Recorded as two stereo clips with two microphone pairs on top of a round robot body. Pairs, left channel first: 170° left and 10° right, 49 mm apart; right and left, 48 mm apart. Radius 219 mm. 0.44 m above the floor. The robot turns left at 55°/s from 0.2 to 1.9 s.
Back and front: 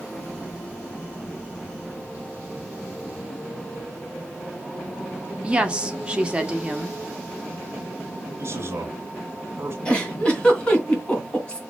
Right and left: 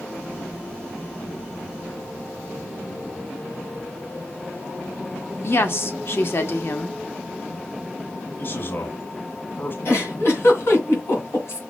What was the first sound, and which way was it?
A woman speaking, 80° right.